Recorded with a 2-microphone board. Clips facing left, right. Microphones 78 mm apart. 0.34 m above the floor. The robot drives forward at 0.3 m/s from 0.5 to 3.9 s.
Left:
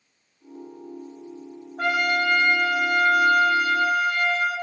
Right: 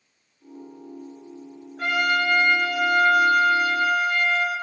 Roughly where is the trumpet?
Left.